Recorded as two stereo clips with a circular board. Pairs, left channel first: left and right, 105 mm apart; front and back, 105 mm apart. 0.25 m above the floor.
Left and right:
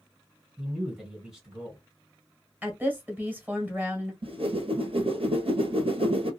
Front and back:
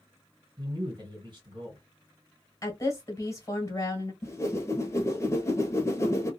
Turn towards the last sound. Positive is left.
turn(degrees=-65)